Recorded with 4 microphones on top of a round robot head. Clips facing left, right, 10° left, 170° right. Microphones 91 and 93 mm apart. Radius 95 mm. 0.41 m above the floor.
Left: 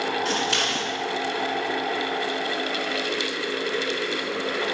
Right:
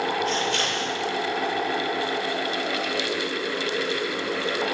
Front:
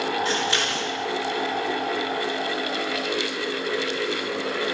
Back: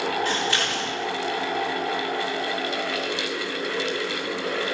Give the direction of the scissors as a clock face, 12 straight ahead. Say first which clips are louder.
Even, even; 9 o'clock.